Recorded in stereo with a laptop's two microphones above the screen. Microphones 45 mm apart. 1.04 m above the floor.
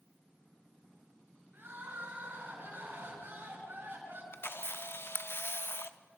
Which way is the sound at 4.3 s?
60° left (ahead or behind).